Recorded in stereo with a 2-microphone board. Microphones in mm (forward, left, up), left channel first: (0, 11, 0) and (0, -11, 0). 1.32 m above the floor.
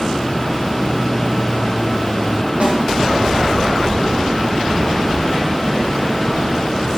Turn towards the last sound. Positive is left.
turn(degrees=-80)